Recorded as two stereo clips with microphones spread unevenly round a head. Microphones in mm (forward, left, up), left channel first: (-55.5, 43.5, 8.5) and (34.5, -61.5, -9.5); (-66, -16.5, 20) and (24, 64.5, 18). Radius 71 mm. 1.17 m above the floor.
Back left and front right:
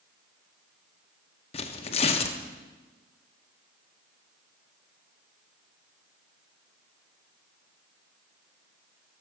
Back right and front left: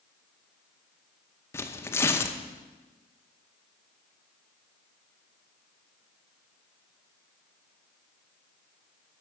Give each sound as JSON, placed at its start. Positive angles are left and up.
{"t": 1.5, "sound": "tearing paper", "azimuth_deg": 155, "distance_m": 0.8}